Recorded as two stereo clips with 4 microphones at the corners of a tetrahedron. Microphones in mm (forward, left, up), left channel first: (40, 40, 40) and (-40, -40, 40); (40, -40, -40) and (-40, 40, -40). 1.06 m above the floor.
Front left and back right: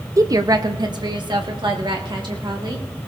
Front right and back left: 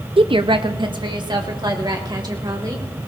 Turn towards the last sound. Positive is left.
turn(degrees=-175)